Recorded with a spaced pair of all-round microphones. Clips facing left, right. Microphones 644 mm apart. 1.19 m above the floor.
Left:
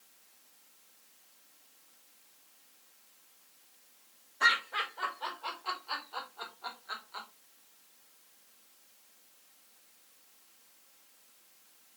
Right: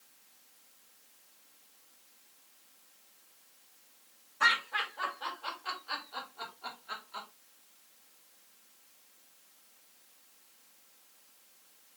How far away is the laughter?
About 5 m.